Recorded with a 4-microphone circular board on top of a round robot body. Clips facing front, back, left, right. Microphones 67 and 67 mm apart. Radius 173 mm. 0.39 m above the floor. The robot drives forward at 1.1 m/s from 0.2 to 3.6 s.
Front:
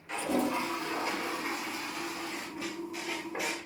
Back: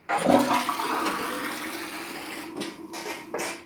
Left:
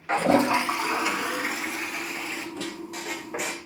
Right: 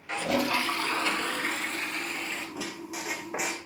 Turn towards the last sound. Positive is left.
turn(degrees=-175)